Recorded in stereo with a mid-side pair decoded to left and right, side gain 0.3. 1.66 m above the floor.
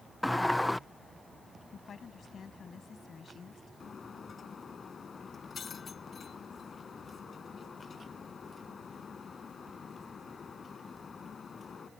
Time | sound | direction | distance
0.2 | a sliding door | 15° left | ?
1.7 | a woman speaking | 65° left | ?
3.8 | breaking glass | 60° left | ?